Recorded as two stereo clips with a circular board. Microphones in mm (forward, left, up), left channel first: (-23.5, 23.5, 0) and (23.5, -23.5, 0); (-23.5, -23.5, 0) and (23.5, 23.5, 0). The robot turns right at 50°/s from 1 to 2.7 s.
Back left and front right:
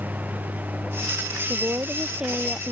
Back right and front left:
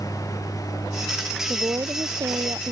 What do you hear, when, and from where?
0.0 s a lawn mower: 110° right; by 2.7 s 25° right
1.5 s a woman speaking: 5° right; by 2.7 s 55° left